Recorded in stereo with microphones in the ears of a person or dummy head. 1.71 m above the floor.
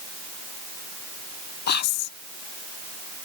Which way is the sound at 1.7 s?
50° left (ahead or behind).